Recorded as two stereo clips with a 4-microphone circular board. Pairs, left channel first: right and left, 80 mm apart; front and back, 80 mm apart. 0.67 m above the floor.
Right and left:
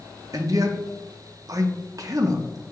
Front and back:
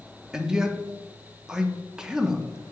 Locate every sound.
0.3 s a man speaking: 100° left, 0.8 m